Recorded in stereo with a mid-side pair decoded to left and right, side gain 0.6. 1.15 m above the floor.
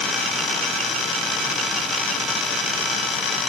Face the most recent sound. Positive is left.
No sound to turn to.